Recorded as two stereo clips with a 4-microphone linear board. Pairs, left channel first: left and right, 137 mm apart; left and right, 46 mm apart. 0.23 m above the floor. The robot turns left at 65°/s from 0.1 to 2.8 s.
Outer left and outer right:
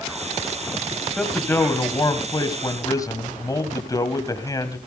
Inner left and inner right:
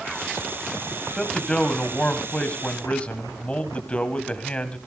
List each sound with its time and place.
1.2 s a man speaking: 170° left, 1.8 m; by 4.8 s 65° left, 1.8 m